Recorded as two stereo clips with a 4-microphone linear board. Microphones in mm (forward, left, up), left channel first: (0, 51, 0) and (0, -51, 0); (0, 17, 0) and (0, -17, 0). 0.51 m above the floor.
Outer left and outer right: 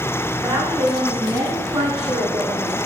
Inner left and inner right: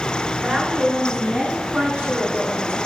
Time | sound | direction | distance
0.4 | a woman speaking | 15° right (ahead or behind) | 4 m